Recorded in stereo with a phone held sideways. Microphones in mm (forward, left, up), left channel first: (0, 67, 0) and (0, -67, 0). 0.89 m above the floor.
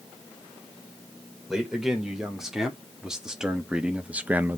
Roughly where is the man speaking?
Centre.